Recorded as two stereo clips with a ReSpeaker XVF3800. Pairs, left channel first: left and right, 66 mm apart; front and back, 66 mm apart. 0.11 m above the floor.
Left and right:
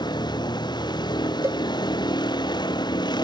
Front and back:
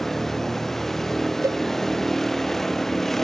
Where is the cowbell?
145° right.